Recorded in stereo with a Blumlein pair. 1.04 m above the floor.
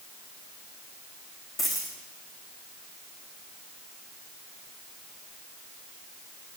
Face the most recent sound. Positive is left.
turn(degrees=10)